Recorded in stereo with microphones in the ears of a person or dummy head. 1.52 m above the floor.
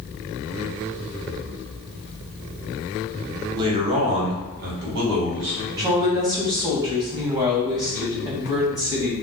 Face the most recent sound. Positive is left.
turn(degrees=-20)  # may be behind; listen again after turning